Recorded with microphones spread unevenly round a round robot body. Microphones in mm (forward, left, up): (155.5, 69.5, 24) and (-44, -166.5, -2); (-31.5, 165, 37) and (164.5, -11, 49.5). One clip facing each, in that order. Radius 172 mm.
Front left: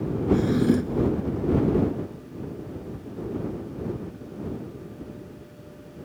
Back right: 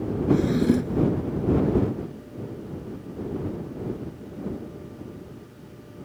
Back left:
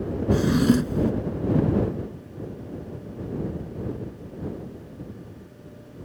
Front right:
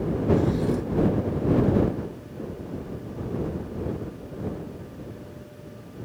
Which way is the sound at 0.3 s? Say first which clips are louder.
Even, back left 5 dB; 140° left.